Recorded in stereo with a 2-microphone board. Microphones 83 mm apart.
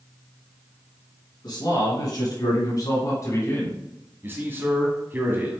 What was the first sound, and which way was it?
A man speaking, 55° left (ahead or behind).